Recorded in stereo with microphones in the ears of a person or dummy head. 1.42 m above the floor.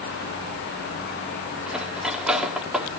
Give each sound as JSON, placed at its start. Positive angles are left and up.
{"t": 1.7, "sound": "cutlery clinking", "side_deg": -5, "distance_m": 1.9}